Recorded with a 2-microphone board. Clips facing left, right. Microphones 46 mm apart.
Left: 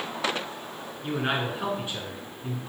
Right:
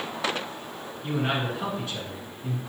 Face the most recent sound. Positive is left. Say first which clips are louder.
# even
turn(degrees=25)  # may be behind; listen again after turning